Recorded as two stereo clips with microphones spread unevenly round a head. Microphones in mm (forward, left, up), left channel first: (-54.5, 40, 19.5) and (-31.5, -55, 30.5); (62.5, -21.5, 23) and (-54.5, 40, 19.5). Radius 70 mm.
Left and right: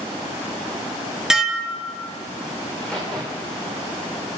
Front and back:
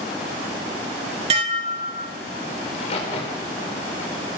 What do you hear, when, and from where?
1.3 s dishes clattering: 155° right, 2 m
2.6 s a crack: 20° left, 5 m